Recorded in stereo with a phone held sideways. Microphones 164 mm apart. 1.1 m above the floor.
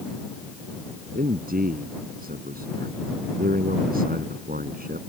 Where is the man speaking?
65° right (ahead or behind).